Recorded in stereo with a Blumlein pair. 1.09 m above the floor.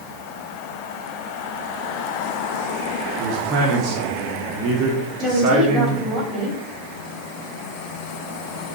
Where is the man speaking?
35° right, 1.5 m.